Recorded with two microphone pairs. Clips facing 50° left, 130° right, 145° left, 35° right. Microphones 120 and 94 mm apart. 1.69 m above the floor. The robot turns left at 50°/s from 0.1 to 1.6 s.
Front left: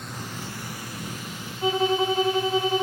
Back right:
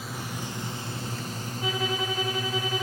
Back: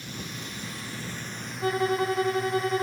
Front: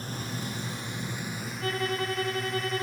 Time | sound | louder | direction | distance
0.0 | a drone | back right 1 dB, front 3 dB | 45° right | ?
1.6 | a violin | front left 8 dB, back 6 dB | 90° left | ?